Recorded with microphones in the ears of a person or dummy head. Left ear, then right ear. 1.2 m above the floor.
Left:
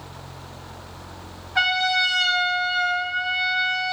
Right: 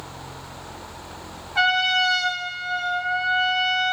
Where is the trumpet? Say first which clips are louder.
Right 1 dB; 15° left (ahead or behind), 3.5 m.